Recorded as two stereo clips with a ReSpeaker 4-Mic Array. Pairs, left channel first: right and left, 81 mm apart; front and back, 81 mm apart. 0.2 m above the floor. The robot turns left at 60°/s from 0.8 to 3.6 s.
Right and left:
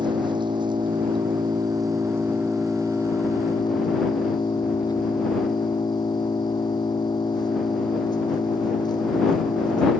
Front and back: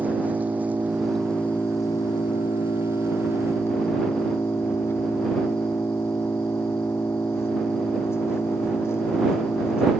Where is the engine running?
110° left; by 10.0 s 60° right.